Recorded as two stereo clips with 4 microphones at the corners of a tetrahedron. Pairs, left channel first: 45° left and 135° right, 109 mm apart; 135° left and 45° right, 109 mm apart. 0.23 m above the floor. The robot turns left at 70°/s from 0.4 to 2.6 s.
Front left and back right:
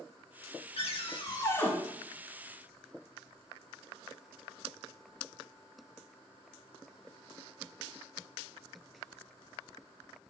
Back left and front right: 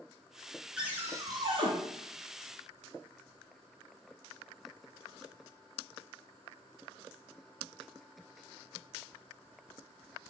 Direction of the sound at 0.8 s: 35° left.